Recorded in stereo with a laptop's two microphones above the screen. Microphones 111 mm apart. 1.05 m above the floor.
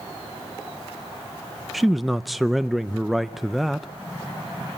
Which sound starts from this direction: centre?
A man speaking, at 1.7 s.